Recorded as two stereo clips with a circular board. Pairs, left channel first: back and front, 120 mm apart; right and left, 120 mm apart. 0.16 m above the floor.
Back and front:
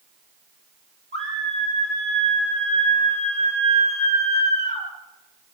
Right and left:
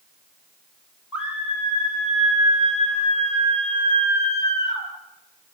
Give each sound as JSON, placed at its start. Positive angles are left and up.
{"t": 1.1, "sound": "a scream", "azimuth_deg": 170, "distance_m": 8.0}